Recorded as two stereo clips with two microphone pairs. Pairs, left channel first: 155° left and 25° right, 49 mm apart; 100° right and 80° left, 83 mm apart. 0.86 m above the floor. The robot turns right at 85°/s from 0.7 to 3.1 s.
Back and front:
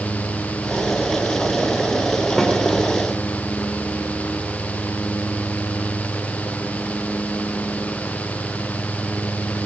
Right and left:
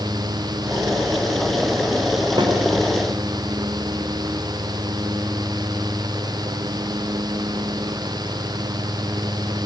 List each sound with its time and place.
2.4 s a snare drum: 70° left, 2.5 m; by 2.6 s 85° left, 2.5 m